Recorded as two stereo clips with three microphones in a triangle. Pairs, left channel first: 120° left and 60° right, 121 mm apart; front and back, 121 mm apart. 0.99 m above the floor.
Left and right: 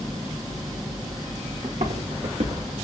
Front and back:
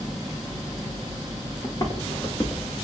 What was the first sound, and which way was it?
Footsteps, 60° right.